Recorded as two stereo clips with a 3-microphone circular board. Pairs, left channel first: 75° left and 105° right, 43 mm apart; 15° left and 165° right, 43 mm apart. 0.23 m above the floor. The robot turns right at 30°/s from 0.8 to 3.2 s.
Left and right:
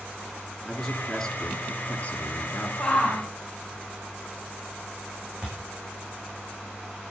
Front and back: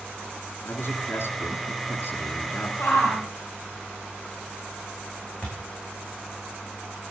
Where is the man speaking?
15° right, 3.5 m; by 2.7 s 40° left, 3.5 m.